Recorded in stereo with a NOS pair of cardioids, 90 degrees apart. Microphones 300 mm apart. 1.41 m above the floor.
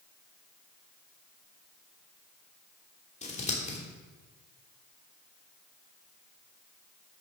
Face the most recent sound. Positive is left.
turn(degrees=25)